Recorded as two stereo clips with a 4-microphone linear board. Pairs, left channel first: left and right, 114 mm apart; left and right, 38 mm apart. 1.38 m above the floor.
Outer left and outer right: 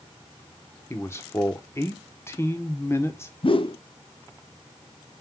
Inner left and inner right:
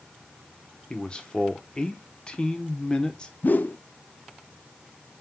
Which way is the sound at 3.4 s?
50° left (ahead or behind).